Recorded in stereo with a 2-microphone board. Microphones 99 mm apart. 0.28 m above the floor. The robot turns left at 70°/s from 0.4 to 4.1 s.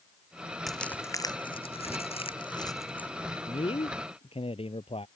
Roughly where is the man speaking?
Behind left.